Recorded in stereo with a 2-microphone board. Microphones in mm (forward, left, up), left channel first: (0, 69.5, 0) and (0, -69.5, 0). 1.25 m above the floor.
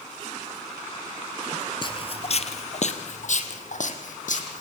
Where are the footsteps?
35° left (ahead or behind), 1.5 m; by 4.6 s 65° left (ahead or behind), 4 m.